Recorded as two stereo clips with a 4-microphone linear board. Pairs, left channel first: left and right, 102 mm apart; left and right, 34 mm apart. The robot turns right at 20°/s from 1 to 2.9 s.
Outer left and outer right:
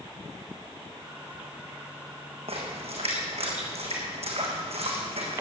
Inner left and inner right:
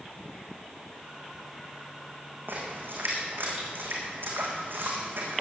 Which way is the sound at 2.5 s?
70° right (ahead or behind).